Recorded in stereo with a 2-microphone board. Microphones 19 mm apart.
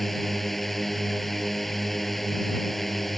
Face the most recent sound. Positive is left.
turn(degrees=10)  # may be behind; listen again after turning